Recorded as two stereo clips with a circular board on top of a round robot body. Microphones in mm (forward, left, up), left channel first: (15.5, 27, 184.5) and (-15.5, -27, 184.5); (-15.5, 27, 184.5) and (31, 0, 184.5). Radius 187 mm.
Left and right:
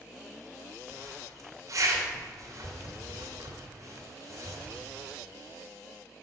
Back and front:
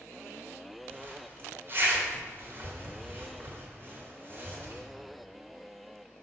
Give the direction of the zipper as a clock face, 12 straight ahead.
3 o'clock.